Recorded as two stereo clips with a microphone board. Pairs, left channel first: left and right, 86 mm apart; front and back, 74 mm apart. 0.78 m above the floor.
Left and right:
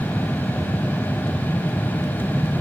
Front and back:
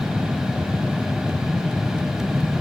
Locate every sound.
Only background noise.